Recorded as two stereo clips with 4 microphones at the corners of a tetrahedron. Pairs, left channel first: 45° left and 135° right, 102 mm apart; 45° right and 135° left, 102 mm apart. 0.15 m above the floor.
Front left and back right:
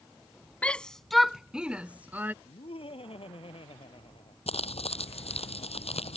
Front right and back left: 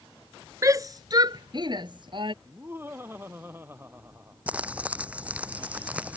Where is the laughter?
70° left.